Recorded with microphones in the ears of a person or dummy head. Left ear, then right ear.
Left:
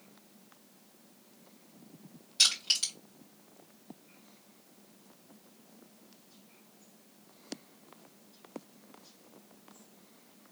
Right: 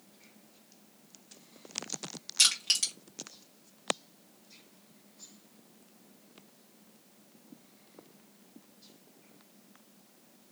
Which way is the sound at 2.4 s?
35° right (ahead or behind).